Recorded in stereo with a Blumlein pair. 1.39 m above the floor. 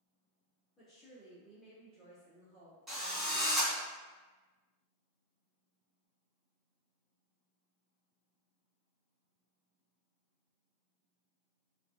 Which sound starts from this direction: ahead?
A drill, at 2.9 s.